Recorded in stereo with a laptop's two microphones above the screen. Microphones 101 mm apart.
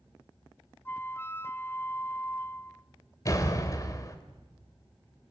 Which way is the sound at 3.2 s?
30° left (ahead or behind).